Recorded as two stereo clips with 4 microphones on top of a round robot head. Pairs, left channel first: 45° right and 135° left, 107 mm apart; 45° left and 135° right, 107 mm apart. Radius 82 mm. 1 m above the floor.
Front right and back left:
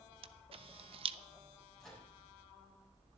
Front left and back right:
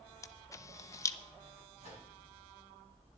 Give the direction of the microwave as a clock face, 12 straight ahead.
4 o'clock.